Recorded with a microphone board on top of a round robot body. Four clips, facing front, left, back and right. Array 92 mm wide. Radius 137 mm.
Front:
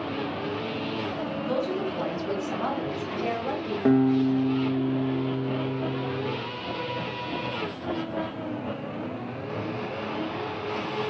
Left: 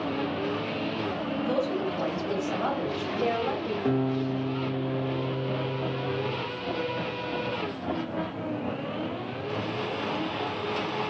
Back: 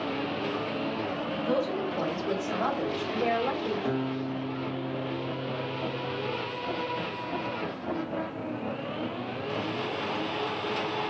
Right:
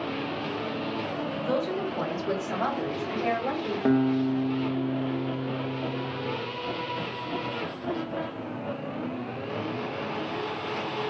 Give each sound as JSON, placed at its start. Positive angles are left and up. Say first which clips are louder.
{"t": 1.4, "sound": "a woman speaking", "louder": "even, even", "azimuth_deg": -90, "distance_m": 2.0}
{"t": 3.9, "sound": "a guitar", "louder": "right 5 dB, front 10 dB", "azimuth_deg": -50, "distance_m": 0.6}